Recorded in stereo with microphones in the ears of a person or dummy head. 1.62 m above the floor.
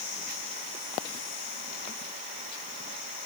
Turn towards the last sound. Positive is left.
No sound to turn to.